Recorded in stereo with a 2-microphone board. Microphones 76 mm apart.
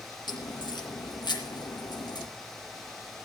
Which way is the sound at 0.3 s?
70° left (ahead or behind).